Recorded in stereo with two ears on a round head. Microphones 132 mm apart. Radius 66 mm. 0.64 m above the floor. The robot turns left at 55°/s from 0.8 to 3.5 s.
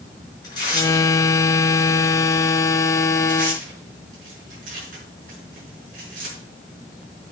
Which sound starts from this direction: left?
Tearing paper, at 0.4 s.